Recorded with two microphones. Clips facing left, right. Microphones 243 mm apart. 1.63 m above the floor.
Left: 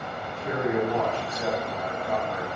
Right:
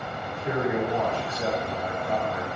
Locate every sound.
0.2 s a man speaking: 15° right (ahead or behind), 3.5 m